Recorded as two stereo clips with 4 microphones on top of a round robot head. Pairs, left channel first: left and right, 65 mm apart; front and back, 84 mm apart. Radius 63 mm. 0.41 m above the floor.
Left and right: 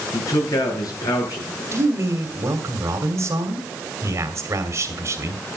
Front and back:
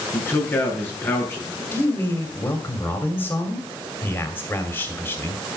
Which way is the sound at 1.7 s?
60° right.